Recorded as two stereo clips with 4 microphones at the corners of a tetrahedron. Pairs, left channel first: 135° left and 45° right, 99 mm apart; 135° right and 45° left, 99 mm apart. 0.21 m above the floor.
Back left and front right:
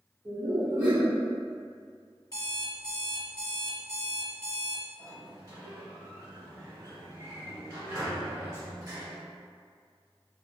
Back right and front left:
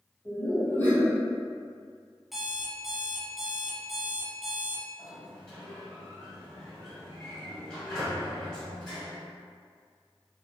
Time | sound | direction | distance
0.2 | laughter | 90° right | 1.4 m
2.3 | an alarm clock | 130° left | 0.9 m
5.0 | a sliding door | 60° right | 1.3 m